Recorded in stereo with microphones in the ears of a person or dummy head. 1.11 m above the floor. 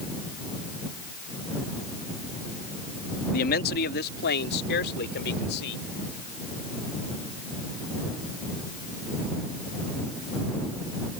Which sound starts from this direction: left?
A man speaking, at 3.3 s.